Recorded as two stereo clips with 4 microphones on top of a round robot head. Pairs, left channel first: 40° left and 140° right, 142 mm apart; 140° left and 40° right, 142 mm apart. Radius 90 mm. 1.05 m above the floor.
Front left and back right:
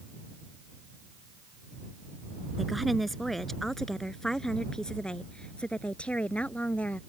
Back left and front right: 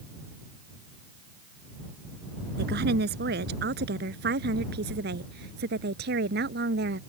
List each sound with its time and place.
2.6 s a woman speaking: 50° right; by 7.0 s 40° right